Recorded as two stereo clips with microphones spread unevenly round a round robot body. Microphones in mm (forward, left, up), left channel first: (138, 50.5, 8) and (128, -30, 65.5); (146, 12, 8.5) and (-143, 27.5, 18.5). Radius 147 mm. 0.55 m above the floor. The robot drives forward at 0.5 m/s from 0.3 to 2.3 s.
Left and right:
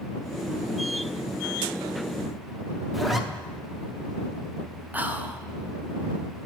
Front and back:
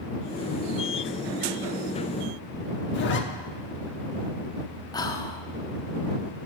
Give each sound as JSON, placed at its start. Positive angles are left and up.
{"t": 2.9, "sound": "a zipper", "azimuth_deg": 30, "distance_m": 0.8}
{"t": 4.9, "sound": "whispering", "azimuth_deg": 45, "distance_m": 0.7}